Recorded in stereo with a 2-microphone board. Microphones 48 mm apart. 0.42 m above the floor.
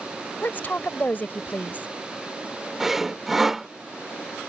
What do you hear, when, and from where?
0.4 s a woman speaking: 40° left (ahead or behind)
2.8 s sawing: 5° right (ahead or behind)